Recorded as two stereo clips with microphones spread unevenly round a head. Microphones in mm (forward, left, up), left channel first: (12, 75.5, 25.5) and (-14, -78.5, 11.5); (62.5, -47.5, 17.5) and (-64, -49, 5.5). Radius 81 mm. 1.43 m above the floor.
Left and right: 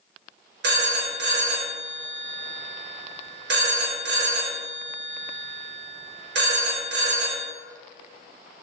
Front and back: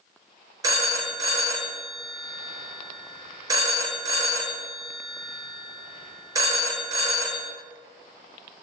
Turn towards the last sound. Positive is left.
turn(degrees=-115)